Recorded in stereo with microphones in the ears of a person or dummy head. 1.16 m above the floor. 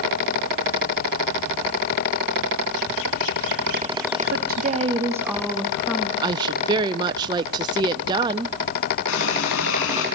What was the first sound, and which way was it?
A woman speaking, 55° right (ahead or behind).